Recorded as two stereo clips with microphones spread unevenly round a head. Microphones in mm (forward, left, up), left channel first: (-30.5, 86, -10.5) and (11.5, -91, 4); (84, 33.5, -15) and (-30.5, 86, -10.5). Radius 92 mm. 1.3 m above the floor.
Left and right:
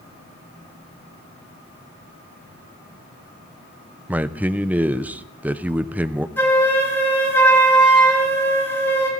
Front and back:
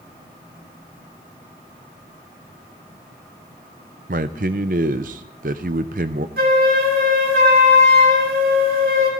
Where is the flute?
Straight behind, 4 m.